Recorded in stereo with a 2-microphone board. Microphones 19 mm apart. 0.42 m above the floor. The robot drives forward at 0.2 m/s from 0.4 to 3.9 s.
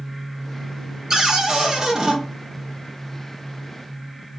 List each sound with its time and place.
1.1 s a cupboard door: 35° right (ahead or behind), 0.7 m; by 2.2 s 25° right (ahead or behind), 0.9 m